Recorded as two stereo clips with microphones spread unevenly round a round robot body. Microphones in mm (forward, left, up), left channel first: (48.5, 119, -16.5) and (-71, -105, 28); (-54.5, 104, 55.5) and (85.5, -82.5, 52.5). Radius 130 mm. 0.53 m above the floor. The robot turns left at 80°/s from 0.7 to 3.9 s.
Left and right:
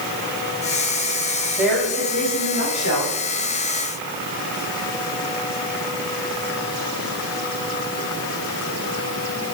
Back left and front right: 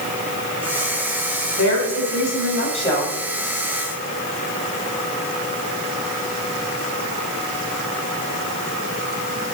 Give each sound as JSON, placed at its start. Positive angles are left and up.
{"t": 1.6, "sound": "a woman speaking", "azimuth_deg": 160, "distance_m": 5.0}